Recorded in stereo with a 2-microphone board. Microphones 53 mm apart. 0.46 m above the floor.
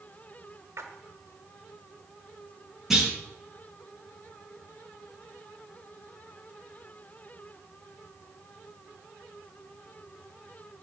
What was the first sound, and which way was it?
A splash, 70° right (ahead or behind).